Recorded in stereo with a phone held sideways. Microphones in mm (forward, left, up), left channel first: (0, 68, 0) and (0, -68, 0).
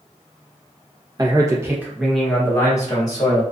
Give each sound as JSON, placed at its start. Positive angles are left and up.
{"t": 1.2, "sound": "a man speaking", "side_deg": -30, "distance_m": 0.9}